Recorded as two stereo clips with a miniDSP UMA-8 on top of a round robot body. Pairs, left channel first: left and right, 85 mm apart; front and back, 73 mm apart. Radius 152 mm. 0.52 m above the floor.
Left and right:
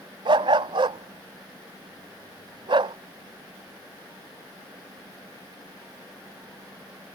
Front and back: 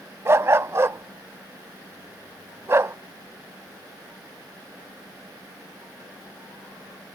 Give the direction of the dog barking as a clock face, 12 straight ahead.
4 o'clock.